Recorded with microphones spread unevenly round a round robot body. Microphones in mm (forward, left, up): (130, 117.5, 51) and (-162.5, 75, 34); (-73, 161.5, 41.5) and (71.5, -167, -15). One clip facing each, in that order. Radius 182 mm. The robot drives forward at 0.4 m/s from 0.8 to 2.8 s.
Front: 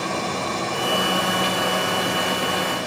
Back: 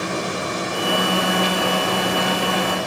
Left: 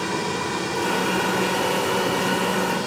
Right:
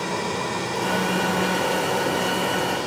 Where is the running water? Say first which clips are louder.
Back 1 dB, left 1 dB; 170° left, 0.7 m; by 2.9 s straight behind, 1.3 m.